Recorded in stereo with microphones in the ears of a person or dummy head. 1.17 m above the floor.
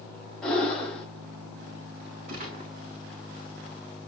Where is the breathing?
5° left (ahead or behind), 4.5 m.